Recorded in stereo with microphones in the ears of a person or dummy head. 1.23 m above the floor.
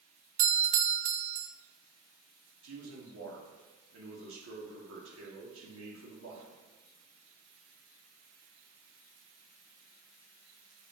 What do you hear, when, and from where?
0.4 s a doorbell: 35° right (ahead or behind), 0.7 m
2.6 s a man speaking: 80° right, 2 m